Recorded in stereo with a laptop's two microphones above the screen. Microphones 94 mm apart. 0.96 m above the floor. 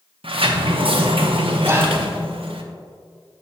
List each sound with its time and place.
0.2 s a sliding door: 75° right (ahead or behind), 0.6 m
1.6 s whispering: 25° right (ahead or behind), 0.6 m